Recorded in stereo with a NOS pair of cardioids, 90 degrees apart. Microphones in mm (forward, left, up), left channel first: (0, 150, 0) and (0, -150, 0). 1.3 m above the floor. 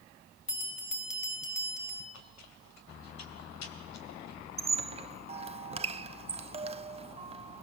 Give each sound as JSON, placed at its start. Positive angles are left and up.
{"t": 0.5, "sound": "a bell", "azimuth_deg": 25, "distance_m": 4.5}
{"t": 2.1, "sound": "chewing", "azimuth_deg": 70, "distance_m": 3.0}
{"t": 4.6, "sound": "a squeak", "azimuth_deg": -20, "distance_m": 0.6}